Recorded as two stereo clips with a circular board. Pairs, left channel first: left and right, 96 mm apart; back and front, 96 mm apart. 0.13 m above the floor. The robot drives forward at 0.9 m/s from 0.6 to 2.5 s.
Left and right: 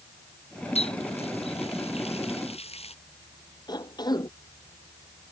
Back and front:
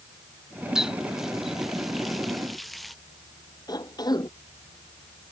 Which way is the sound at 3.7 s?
135° left.